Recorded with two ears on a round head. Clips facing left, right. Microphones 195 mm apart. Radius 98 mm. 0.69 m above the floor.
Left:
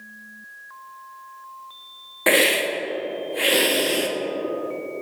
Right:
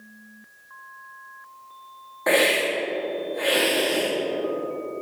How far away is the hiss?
About 0.7 m.